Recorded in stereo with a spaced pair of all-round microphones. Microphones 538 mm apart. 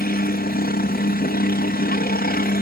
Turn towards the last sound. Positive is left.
turn(degrees=15)  # may be behind; listen again after turning